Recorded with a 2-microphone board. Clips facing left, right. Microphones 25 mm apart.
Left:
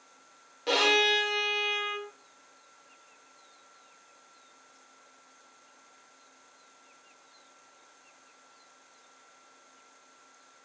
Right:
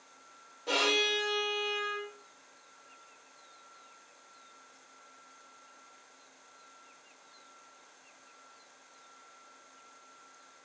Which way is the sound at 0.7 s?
60° left (ahead or behind).